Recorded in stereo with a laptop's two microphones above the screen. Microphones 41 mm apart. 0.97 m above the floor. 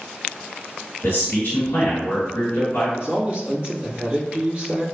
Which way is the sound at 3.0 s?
30° right (ahead or behind).